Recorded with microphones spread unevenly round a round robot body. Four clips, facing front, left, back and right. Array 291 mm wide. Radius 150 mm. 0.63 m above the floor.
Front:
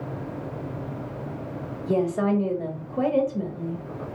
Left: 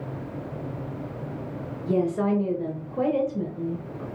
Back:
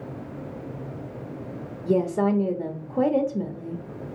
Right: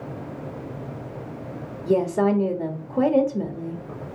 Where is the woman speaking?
70° right, 0.7 m.